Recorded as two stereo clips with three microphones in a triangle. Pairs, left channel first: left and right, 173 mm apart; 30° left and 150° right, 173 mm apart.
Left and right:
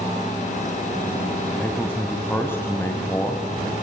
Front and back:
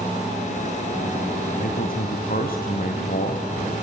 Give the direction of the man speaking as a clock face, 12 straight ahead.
12 o'clock.